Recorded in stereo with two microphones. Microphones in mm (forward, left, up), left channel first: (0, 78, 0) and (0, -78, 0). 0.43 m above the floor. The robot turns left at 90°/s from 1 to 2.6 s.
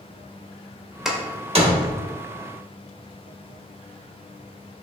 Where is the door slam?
Centre (ahead or behind), 0.7 m; by 2.1 s 55° right (ahead or behind), 0.7 m.